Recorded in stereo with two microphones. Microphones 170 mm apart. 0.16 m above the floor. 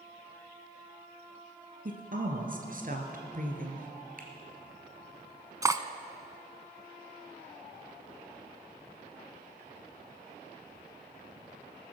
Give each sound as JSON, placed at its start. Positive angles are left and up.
{"t": 1.9, "sound": "a woman speaking", "side_deg": -55, "distance_m": 2.5}
{"t": 4.2, "sound": "a finger snap", "side_deg": -55, "distance_m": 2.5}
{"t": 5.6, "sound": "cutlery clinking", "side_deg": -20, "distance_m": 0.6}